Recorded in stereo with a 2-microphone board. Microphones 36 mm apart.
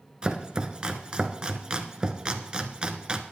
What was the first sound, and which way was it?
Chopping, 25° right (ahead or behind).